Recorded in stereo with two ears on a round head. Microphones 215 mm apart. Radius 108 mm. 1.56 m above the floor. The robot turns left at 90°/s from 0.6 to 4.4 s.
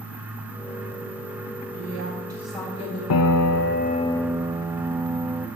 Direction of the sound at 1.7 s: 110° right.